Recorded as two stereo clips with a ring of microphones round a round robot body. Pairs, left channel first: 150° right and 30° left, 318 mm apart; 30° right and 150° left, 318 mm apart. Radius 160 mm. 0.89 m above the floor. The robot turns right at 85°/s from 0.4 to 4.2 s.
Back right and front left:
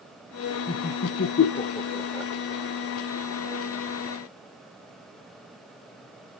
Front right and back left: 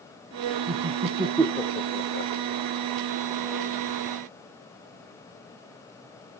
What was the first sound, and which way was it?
Laughter, 170° left.